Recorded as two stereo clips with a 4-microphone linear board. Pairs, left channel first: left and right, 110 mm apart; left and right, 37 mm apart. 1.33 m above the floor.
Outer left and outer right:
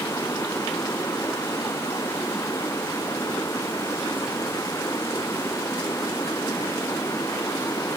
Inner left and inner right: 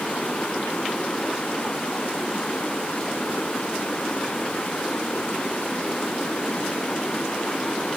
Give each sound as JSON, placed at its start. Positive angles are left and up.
{"t": 0.0, "sound": "running water", "side_deg": 30}